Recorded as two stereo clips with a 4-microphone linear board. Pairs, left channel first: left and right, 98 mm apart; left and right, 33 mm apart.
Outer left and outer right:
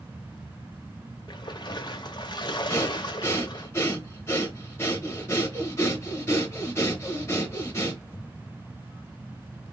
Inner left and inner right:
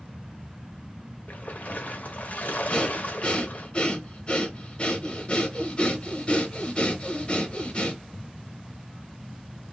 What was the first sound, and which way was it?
A splash, 45° left (ahead or behind).